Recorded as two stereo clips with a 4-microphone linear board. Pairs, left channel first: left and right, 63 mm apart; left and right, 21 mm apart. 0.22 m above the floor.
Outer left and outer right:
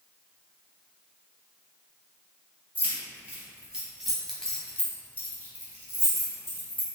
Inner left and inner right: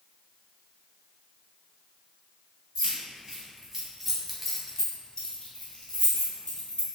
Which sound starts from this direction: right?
Keys jangling, at 2.8 s.